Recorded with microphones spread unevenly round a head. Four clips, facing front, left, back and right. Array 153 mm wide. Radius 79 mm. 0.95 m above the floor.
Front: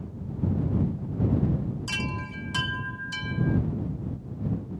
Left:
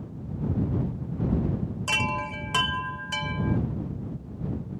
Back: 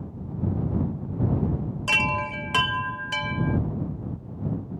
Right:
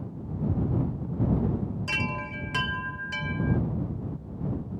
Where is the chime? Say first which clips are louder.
Left 3 dB, back 7 dB; 160° left.